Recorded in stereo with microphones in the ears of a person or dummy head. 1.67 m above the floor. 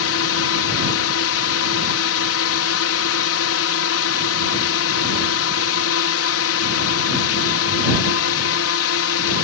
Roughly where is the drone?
Left.